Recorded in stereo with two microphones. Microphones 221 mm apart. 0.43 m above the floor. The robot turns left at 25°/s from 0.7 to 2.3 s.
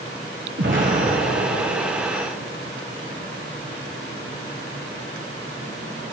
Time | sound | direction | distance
0.6 | an explosion | 60° right | 1.3 m